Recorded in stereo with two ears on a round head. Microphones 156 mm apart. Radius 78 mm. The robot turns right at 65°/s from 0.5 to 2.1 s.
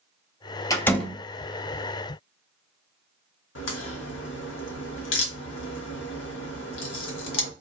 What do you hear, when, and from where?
0.7 s a door slam: 20° left (ahead or behind), 0.7 m; by 1.2 s 5° right (ahead or behind), 0.7 m
3.5 s a crack: 80° left, 0.8 m